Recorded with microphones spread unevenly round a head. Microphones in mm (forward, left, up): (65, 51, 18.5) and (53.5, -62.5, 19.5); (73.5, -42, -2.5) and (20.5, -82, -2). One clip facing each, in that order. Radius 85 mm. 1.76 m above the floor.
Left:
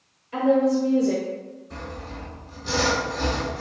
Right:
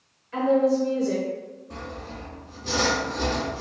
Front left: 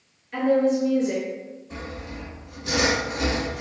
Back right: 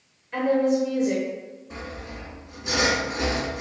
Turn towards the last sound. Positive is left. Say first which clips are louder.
# even, even
turn(degrees=-70)